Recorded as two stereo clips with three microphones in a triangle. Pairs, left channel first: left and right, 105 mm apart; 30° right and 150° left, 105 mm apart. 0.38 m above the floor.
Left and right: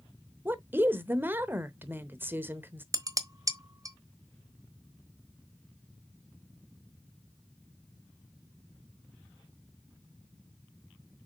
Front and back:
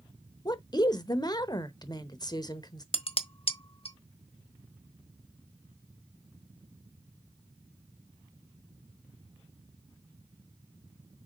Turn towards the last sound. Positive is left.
turn(degrees=-35)